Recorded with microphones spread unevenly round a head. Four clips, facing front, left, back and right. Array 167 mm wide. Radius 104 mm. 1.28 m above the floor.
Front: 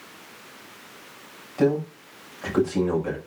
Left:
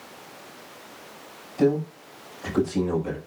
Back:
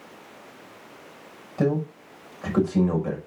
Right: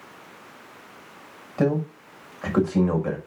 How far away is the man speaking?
About 5.5 m.